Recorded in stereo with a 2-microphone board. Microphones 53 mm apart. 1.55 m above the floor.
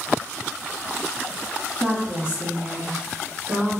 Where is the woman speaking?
50° right (ahead or behind), 1.4 m; by 3.8 s 80° right, 2 m.